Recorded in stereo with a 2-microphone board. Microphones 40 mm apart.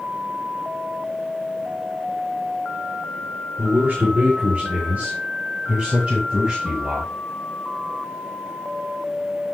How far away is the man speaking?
About 3.5 m.